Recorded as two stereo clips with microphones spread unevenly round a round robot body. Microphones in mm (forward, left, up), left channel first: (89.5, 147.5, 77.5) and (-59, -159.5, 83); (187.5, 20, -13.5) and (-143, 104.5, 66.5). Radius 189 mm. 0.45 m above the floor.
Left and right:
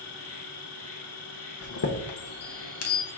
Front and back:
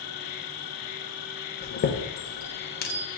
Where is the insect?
15° left, 0.7 m.